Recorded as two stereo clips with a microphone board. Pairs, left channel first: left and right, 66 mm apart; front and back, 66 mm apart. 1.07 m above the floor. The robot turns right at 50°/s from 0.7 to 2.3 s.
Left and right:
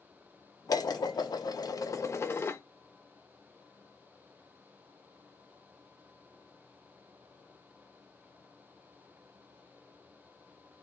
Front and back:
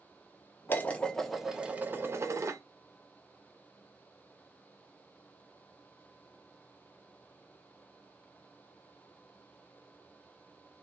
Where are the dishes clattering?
60° left, 0.6 m; by 2.6 s 140° left, 0.6 m.